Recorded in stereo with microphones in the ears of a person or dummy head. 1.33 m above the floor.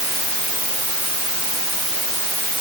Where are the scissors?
No scissors in this recording.